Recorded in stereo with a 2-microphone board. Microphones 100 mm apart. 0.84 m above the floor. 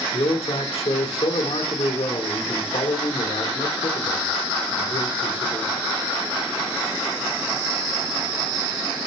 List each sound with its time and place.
0.1 s a man speaking: 75° left (ahead or behind), 2 m